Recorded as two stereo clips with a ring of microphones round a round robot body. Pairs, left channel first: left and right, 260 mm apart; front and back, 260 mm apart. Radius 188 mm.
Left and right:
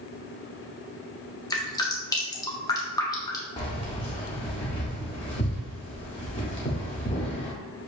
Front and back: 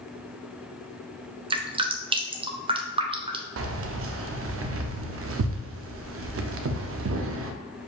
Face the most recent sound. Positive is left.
turn(degrees=155)